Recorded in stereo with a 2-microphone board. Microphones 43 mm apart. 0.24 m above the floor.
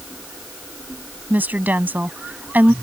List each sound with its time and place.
1.3 s a woman speaking: 45° right (ahead or behind)